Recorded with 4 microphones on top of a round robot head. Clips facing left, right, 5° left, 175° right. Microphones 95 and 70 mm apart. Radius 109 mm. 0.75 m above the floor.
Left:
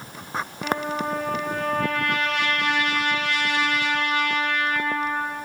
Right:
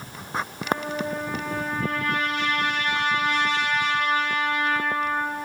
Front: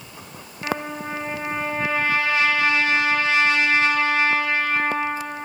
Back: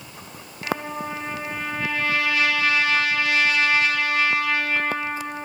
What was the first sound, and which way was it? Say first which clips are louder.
A trumpet: left 2 dB, even; 70° left.